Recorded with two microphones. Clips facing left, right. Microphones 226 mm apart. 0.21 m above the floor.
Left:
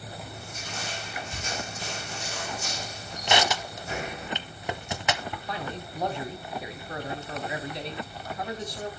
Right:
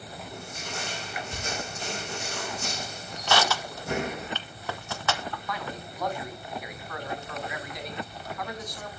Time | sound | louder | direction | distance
0.3 | crushing | right 2 dB | 55° right (ahead or behind) | 4 m
3.3 | crushing | even | 20° left (ahead or behind) | 0.7 m
5.5 | a man speaking | left 1 dB | 30° left (ahead or behind) | 1.3 m